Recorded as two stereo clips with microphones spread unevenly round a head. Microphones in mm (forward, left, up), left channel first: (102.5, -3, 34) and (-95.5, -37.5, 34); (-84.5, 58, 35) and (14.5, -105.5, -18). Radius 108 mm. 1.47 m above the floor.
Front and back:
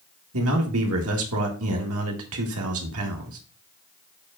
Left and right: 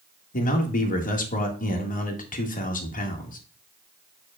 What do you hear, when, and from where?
0.3 s a man speaking: 165° left, 2.0 m